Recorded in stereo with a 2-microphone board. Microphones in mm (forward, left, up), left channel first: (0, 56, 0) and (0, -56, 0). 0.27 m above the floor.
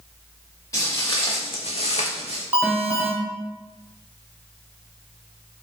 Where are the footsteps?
30° left (ahead or behind), 1.2 m; by 2.4 s 65° left (ahead or behind), 0.9 m.